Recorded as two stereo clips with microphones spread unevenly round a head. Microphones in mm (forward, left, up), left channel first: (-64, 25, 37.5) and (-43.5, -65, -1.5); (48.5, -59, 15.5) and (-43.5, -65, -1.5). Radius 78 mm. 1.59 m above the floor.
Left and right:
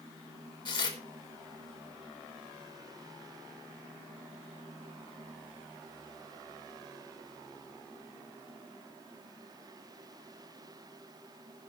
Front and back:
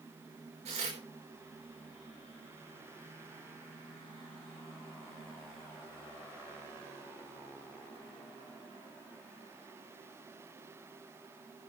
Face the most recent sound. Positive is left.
turn(degrees=135)